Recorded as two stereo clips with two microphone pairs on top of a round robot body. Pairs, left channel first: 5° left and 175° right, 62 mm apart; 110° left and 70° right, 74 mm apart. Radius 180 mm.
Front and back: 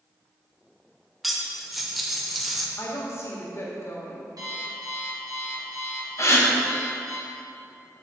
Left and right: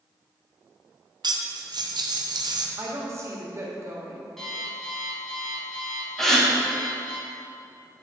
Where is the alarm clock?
165° right, 2.5 m.